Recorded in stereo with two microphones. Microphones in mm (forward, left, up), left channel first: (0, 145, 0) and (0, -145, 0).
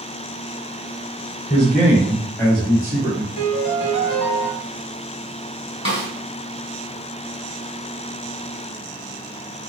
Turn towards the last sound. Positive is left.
turn(degrees=45)  # may be behind; listen again after turning